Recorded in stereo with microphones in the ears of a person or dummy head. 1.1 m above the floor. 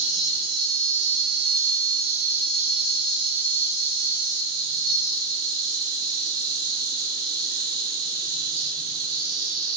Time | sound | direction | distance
0.0 | an insect | 80° right | 1.9 m